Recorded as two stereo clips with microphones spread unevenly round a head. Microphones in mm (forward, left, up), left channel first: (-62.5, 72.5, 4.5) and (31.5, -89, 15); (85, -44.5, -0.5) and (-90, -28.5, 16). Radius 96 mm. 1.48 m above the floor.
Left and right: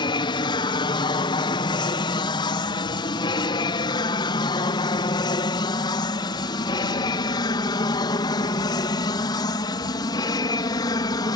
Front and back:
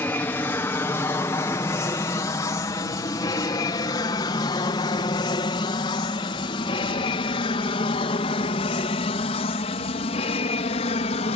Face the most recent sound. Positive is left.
turn(degrees=50)